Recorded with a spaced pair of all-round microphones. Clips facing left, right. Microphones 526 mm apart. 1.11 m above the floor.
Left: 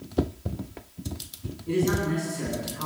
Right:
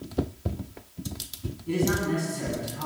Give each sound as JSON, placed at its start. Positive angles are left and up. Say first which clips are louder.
{"t": 1.7, "sound": "a man speaking", "louder": "left 1 dB", "side_deg": -10, "distance_m": 9.5}